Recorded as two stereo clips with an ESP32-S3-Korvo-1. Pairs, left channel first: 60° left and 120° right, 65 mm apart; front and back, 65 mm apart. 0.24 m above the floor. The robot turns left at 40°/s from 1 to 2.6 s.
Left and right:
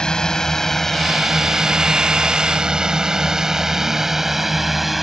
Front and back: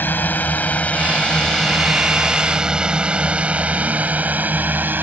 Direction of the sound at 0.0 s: 5° right.